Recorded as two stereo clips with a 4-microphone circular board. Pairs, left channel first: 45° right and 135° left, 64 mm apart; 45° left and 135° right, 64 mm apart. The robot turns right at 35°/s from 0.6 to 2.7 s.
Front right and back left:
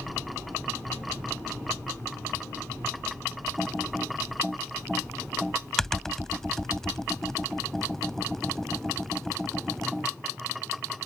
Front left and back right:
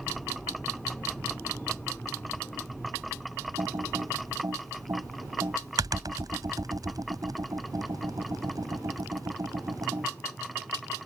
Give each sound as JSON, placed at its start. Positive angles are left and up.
{"t": 3.6, "sound": "typing on a keyboard", "azimuth_deg": -130}